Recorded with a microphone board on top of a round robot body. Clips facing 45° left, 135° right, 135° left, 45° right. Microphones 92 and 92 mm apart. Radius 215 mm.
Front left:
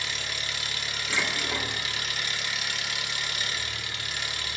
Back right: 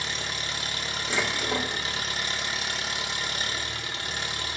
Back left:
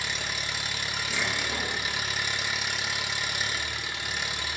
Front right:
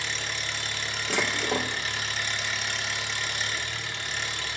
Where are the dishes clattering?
60° right, 1.1 m.